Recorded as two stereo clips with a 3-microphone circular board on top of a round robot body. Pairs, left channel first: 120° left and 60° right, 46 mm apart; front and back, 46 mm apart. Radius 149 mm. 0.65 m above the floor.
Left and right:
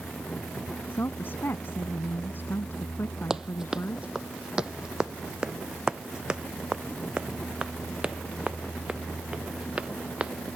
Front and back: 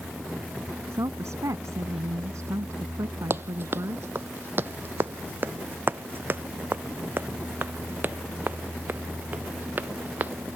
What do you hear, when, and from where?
0.9 s a woman speaking: 165° left
3.3 s running footsteps: 140° right; by 10.3 s 125° right